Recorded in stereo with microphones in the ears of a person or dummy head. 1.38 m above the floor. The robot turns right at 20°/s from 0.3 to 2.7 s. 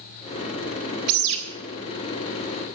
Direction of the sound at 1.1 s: 55° right (ahead or behind).